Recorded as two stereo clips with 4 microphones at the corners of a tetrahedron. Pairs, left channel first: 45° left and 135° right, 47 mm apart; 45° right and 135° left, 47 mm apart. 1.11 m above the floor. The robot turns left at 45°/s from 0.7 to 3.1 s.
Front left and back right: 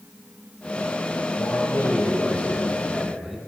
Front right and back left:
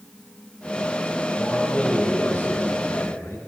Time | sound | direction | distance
1.4 | a man speaking | 30° left | 6.5 m